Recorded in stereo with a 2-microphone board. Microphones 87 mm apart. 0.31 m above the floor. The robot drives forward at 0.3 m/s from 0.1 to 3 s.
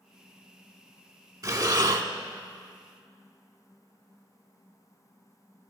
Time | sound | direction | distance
1.4 | breathing | 45° right (ahead or behind) | 0.7 m